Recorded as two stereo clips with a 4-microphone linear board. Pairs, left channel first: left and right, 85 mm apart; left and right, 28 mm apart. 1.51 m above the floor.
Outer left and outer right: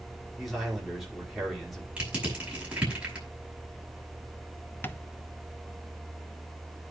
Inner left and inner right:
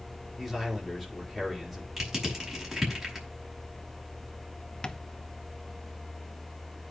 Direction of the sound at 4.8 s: 25° left (ahead or behind).